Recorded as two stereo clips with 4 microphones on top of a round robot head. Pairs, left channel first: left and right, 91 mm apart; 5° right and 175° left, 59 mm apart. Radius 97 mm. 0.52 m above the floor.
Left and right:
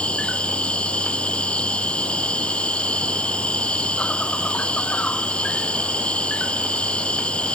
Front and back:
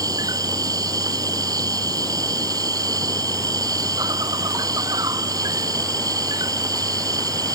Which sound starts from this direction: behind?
An insect, at 0.0 s.